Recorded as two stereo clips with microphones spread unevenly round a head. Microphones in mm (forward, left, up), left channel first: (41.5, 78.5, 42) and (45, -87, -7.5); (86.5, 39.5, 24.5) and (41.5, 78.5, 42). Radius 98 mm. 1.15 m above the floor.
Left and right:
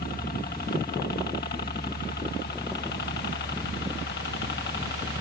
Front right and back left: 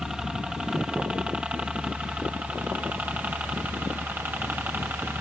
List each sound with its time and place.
0.0 s a helicopter: 55° left; by 5.2 s 85° left